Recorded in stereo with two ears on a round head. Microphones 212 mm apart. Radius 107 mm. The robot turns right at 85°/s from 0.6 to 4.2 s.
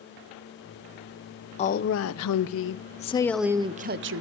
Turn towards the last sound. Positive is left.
turn(degrees=-110)